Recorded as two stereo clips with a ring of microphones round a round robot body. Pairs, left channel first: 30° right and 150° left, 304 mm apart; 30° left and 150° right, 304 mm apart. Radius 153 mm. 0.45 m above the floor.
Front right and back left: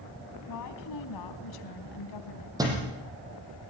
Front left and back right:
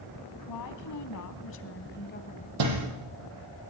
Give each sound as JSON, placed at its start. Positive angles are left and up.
{"t": 0.5, "sound": "a woman speaking", "azimuth_deg": 5, "distance_m": 3.0}
{"t": 2.6, "sound": "a thud", "azimuth_deg": -130, "distance_m": 6.5}